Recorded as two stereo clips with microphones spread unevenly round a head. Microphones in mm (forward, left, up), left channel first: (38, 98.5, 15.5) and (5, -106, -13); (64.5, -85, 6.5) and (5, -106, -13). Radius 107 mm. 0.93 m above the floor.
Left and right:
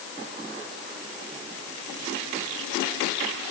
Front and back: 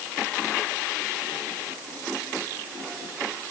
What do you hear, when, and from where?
Only background noise.